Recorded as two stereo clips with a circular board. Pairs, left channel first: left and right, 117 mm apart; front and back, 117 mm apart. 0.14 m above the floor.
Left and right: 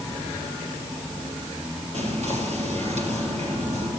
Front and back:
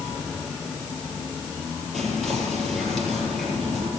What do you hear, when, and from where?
1.9 s whispering: 85° right, 3.5 m